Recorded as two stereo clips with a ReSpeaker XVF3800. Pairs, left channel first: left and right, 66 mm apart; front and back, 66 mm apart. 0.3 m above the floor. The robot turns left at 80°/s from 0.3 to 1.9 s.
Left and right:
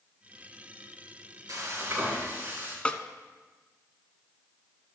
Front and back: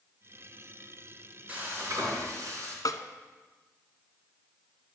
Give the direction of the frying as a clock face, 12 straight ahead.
4 o'clock.